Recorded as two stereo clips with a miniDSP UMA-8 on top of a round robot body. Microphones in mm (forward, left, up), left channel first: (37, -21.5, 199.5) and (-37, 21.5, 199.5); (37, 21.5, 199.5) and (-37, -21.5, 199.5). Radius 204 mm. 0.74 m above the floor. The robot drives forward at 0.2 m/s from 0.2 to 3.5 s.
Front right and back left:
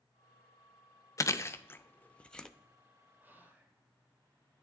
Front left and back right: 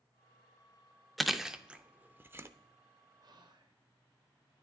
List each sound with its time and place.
1.2 s chewing: 60° right, 0.6 m; by 2.5 s 110° right, 0.6 m
3.2 s whispering: 145° right, 0.8 m; by 3.8 s 150° right, 0.8 m